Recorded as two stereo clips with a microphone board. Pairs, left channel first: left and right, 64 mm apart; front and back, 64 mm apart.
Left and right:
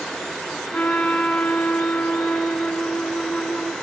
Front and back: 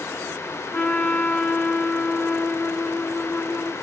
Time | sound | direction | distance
0.7 | a trumpet | 35° left | 1.4 m